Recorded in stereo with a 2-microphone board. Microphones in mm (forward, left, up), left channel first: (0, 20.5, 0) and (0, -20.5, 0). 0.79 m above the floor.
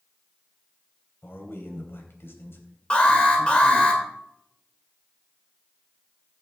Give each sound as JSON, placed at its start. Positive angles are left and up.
{"t": 1.2, "sound": "a man speaking", "side_deg": 80, "distance_m": 3.5}
{"t": 2.9, "sound": "an alarm", "side_deg": 30, "distance_m": 3.0}